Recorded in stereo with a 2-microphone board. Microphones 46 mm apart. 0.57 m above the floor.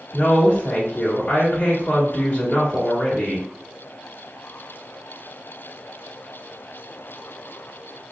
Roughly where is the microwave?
I don't hear a microwave.